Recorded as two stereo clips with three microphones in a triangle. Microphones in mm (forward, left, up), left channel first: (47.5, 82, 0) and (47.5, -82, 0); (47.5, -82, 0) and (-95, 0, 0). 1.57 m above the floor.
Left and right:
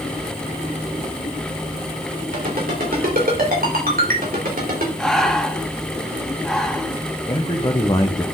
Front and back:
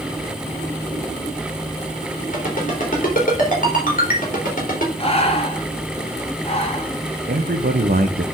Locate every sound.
2.3 s a ringtone: 65° right, 3.5 m
5.0 s breathing: 5° left, 1.3 m
7.3 s a man speaking: 150° left, 0.7 m